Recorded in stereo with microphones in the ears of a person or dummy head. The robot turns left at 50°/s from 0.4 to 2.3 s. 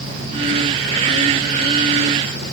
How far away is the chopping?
I don't hear chopping.